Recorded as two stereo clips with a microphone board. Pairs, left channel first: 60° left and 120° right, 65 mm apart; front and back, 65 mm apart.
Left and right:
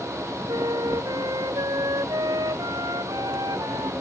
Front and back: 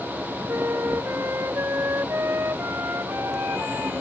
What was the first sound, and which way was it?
A flute, 125° right.